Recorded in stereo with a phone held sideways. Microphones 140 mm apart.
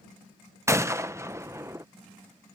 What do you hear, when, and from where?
0.7 s a gunshot: 20° right (ahead or behind)